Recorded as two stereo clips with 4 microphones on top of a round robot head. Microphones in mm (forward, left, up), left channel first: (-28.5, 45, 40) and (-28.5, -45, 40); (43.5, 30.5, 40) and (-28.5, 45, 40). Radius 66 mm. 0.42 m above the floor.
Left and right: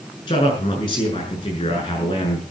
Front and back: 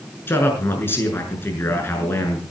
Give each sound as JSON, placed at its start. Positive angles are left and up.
{"t": 0.3, "sound": "a man speaking", "azimuth_deg": 50, "distance_m": 6.5}